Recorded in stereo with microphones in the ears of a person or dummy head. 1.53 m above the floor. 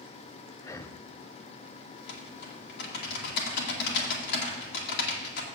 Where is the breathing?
20° left (ahead or behind), 0.6 m.